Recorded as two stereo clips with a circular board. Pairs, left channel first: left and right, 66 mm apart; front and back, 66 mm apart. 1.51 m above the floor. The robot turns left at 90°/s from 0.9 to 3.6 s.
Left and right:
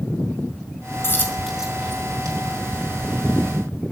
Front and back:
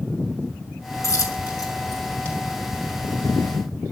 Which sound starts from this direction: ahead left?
A dropped coin, at 1.0 s.